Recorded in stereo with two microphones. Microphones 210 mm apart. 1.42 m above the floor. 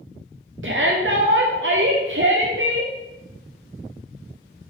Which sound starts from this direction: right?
A shout, at 0.6 s.